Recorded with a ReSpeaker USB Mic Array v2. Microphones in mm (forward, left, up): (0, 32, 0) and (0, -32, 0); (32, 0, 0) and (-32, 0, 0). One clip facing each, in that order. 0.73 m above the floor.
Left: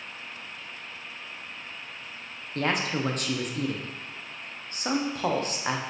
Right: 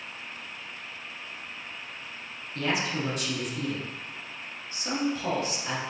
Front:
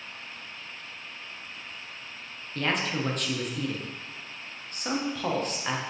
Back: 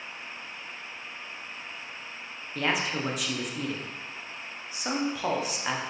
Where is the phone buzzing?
No phone buzzing in this recording.